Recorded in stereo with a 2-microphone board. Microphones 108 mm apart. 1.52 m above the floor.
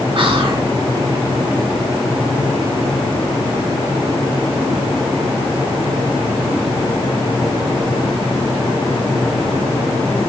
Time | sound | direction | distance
0.1 | whispering | 55° right (ahead or behind) | 1.4 m